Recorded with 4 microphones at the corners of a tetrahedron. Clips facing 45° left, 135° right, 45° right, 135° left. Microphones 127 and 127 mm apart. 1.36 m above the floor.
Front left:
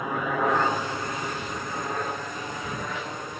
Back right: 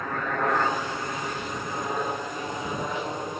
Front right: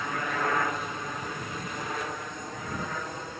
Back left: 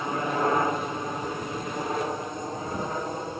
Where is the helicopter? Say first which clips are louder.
Front left 2 dB, back left 5 dB; 110° left; by 3.4 s 175° left.